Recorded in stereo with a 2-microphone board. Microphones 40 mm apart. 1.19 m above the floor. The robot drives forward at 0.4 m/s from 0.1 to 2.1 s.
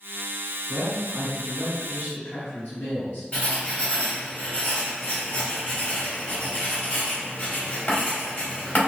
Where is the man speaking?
75° left (ahead or behind), 1.7 m; by 3.2 s 70° left (ahead or behind), 1.8 m.